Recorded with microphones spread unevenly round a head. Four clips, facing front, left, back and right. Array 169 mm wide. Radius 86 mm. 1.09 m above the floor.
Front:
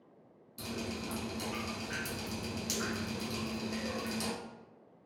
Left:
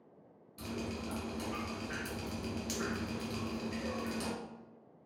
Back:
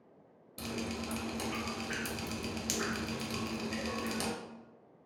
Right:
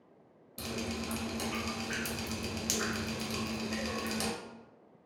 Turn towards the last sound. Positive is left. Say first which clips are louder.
# right 2 dB, back 1 dB
turn(degrees=-130)